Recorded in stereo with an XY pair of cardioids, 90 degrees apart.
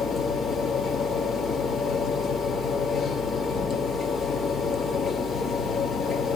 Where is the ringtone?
No ringtone in this recording.